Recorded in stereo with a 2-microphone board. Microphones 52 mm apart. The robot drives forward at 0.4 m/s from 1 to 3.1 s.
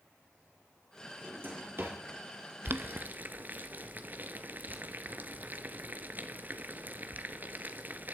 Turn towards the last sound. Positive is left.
turn(degrees=-35)  # may be behind; listen again after turning